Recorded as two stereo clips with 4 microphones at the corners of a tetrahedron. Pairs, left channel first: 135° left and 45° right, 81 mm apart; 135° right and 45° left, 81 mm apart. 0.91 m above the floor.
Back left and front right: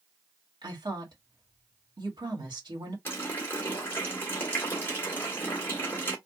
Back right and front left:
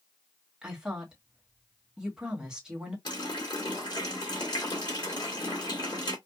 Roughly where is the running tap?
Behind.